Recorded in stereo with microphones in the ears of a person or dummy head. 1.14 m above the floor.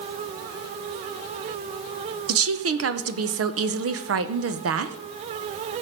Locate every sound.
2.3 s a woman speaking: 55° right (ahead or behind), 0.7 m